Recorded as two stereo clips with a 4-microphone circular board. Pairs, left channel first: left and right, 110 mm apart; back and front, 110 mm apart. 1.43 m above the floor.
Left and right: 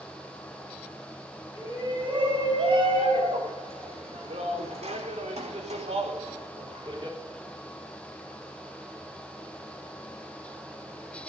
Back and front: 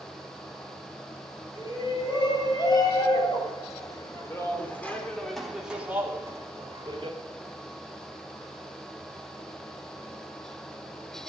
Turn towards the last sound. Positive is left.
turn(degrees=-40)